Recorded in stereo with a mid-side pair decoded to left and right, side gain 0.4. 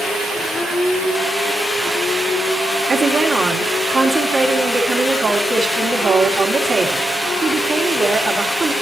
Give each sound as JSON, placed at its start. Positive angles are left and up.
{"t": 2.9, "sound": "a woman speaking", "azimuth_deg": -50, "distance_m": 2.5}